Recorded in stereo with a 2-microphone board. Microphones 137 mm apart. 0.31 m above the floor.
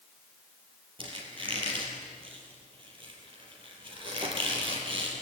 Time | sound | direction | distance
1.0 | a squeak | 40° right (ahead or behind) | 5.5 m